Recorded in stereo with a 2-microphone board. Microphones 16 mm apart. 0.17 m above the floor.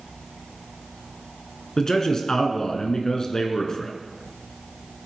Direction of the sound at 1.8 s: 35° left (ahead or behind).